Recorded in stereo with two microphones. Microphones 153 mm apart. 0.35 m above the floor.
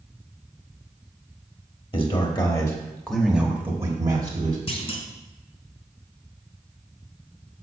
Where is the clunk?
40° left (ahead or behind), 1.0 m.